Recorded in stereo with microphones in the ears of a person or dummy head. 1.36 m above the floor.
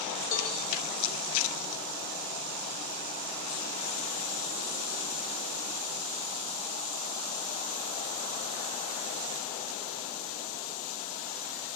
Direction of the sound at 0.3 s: 60° left (ahead or behind).